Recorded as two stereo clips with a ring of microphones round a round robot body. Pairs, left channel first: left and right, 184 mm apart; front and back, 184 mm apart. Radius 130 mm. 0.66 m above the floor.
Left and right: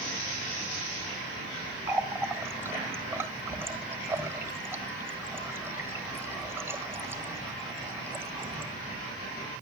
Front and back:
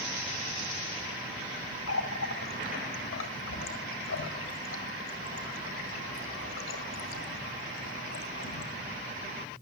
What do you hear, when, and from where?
1.9 s a running tap: 10° right, 2.0 m